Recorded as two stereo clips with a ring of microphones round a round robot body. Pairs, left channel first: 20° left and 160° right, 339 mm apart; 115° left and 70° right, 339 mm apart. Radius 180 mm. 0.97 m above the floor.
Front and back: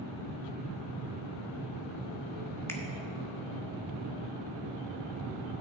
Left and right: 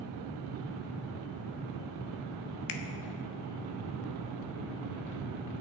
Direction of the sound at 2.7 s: 105° left.